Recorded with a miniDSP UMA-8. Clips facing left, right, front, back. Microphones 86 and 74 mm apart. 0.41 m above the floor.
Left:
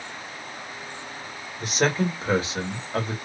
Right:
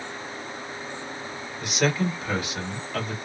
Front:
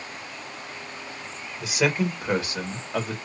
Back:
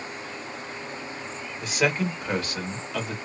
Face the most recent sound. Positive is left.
turn(degrees=35)